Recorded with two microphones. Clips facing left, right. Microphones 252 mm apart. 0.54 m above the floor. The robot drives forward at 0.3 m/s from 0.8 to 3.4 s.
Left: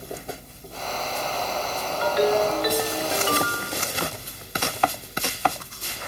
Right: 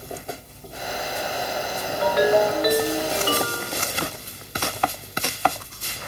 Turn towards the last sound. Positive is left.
turn(degrees=-45)  # may be behind; listen again after turning